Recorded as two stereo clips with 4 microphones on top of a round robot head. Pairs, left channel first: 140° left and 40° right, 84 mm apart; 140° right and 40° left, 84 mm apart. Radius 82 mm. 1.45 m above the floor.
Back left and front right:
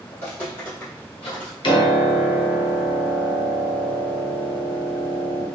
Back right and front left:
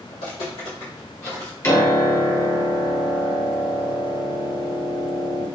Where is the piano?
160° left, 1.1 m.